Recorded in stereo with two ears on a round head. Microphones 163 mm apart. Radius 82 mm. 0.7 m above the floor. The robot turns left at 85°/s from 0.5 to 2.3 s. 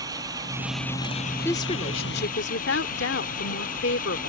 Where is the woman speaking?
165° left; by 4.3 s 95° left.